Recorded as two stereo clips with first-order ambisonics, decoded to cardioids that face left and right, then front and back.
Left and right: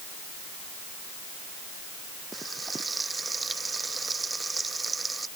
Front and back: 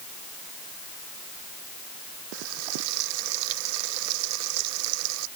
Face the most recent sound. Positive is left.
turn(degrees=-170)